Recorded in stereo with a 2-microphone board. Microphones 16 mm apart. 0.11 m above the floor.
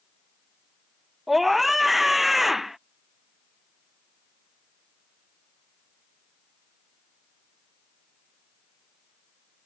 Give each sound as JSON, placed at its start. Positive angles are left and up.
{"t": 1.3, "sound": "a scream", "side_deg": -5}